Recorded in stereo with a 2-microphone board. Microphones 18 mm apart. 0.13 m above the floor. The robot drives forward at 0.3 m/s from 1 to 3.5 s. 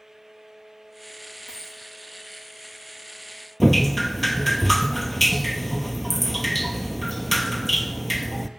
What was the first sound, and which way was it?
A dropped coin, 70° right (ahead or behind).